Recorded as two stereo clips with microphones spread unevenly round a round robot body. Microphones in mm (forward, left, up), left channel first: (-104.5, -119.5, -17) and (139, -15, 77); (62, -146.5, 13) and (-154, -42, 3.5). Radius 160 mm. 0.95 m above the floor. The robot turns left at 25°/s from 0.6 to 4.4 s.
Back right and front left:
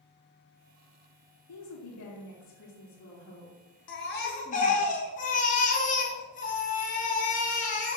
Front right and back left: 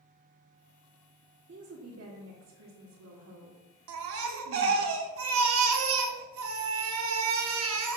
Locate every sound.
1.5 s a woman speaking: 165° right, 1.5 m; by 4.9 s 125° left, 1.5 m
3.9 s a baby crying: 140° left, 0.7 m; by 8.0 s 125° left, 0.7 m